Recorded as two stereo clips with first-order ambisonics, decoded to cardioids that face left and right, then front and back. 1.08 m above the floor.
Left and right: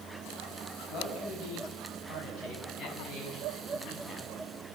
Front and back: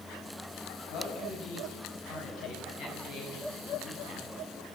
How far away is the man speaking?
About 9 m.